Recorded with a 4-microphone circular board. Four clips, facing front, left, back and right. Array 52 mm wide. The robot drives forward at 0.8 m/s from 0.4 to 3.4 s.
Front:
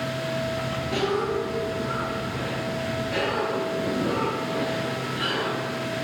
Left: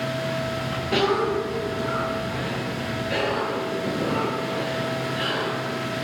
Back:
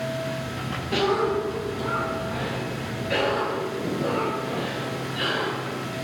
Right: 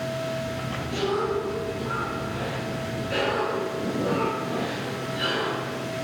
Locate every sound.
0.9 s a cough: 105° left, 0.7 m; by 5.8 s 165° left, 2 m